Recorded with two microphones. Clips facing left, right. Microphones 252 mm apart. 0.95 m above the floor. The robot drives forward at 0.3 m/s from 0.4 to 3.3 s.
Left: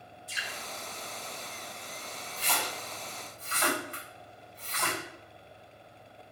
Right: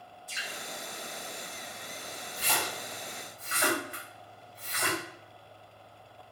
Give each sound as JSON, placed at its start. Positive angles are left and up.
{"t": 0.3, "sound": "dripping", "side_deg": 35, "distance_m": 2.5}
{"t": 2.4, "sound": "a splash", "side_deg": -10, "distance_m": 1.8}